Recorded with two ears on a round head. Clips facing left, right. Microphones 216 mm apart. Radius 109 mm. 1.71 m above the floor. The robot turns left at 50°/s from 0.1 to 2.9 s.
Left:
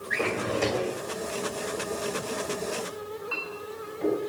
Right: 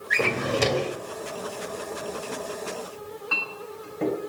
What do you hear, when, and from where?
0.1 s a drawer: 60° right, 2.5 m; by 1.0 s 100° right, 2.5 m
3.0 s a clink: 70° right (ahead or behind), 5 m